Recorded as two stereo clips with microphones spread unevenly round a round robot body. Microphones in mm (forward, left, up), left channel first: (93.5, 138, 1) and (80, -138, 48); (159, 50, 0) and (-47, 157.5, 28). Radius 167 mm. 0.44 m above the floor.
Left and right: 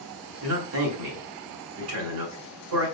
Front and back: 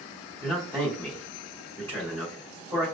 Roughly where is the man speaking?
Behind right.